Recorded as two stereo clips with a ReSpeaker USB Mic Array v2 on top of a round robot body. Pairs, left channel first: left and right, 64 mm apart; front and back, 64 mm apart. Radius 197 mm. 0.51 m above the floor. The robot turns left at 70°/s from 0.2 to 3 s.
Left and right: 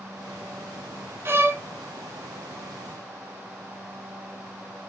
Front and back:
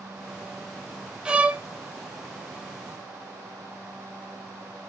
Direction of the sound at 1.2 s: 110° right.